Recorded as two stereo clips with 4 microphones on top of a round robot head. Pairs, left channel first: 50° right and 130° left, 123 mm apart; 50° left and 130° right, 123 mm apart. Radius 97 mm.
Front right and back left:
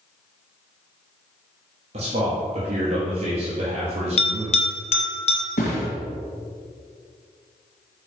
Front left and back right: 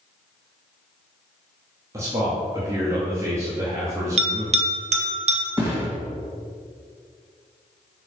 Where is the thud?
60° right, 1.9 m.